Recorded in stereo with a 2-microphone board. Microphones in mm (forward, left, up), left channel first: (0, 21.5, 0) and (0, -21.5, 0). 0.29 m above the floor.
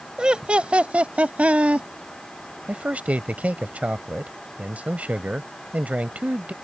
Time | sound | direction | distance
0.2 | laughter | 20° right (ahead or behind) | ?
2.7 | a man speaking | 35° right (ahead or behind) | ?